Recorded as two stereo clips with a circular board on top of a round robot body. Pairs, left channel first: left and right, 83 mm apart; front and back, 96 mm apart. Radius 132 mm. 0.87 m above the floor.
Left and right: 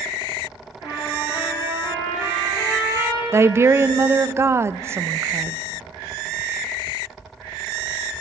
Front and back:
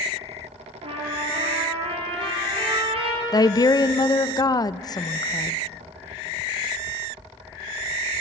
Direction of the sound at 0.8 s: 150° right.